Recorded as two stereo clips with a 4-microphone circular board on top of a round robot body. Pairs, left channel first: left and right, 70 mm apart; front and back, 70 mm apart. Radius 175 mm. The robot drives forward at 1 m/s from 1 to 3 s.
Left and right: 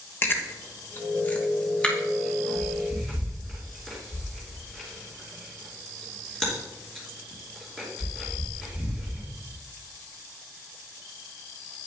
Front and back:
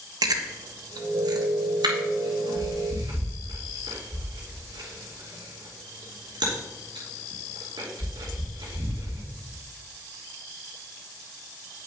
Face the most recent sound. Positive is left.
turn(degrees=175)